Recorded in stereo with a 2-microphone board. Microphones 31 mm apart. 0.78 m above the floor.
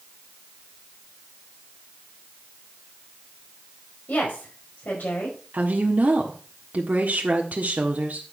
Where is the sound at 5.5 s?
65° right (ahead or behind), 1.5 m.